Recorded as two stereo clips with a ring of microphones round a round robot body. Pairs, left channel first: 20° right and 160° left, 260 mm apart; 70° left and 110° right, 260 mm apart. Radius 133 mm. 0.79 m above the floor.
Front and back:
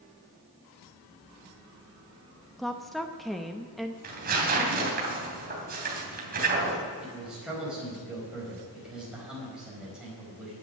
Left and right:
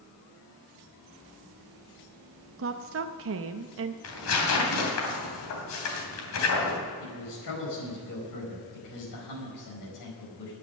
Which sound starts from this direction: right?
A woman speaking, at 2.6 s.